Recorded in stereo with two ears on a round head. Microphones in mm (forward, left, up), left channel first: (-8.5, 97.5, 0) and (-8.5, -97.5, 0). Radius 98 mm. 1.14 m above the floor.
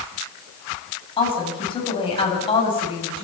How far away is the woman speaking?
About 9 m.